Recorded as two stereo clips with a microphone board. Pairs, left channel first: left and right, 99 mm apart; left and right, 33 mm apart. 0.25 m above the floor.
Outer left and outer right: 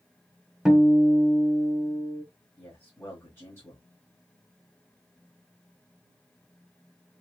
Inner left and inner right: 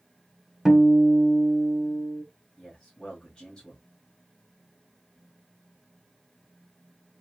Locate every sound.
0.7 s a guitar: 5° right (ahead or behind), 1.1 m
2.6 s a man speaking: 25° left (ahead or behind), 1.6 m